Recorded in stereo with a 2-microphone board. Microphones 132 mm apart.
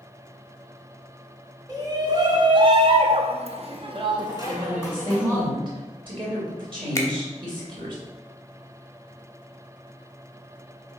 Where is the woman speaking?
40° right (ahead or behind), 3 m.